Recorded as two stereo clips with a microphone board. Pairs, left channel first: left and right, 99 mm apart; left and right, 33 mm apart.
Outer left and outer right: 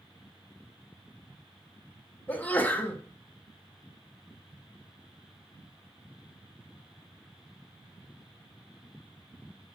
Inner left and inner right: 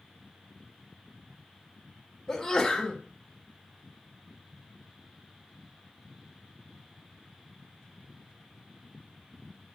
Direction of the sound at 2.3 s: 15° left (ahead or behind).